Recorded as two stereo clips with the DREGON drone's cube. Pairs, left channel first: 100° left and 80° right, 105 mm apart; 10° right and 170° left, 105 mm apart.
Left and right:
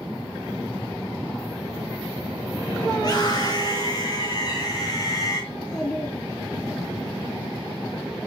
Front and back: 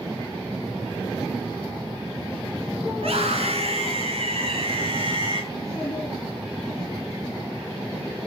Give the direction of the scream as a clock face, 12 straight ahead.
7 o'clock.